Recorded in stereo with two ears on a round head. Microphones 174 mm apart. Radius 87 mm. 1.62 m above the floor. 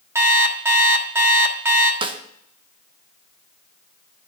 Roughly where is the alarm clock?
Centre.